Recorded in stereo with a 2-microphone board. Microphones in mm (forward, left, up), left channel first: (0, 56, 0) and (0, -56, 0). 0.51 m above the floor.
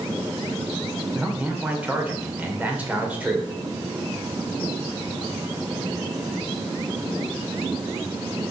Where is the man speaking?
15° right (ahead or behind), 2 m.